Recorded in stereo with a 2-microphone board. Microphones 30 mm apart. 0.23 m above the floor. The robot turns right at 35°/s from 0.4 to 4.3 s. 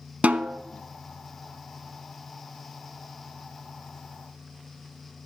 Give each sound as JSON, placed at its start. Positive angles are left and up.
{"t": 0.2, "sound": "a snare drum", "side_deg": -55, "distance_m": 0.5}